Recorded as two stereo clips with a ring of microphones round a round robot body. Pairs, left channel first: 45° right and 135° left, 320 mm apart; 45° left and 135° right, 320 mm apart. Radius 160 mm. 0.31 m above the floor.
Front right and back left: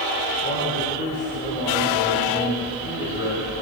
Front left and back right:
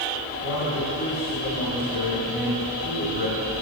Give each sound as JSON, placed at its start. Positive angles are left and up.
{"t": 0.4, "sound": "a man speaking", "azimuth_deg": 0, "distance_m": 2.0}